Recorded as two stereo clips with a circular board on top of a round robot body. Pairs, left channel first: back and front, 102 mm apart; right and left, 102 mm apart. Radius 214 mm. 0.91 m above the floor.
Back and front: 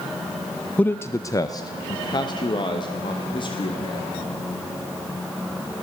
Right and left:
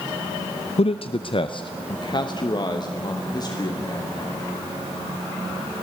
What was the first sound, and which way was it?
A man speaking, 105° right.